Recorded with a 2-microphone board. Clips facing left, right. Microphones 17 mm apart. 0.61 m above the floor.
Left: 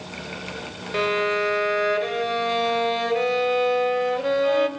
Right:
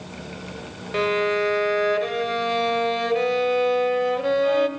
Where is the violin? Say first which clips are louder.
Right 1 dB; centre (ahead or behind), 1.6 m.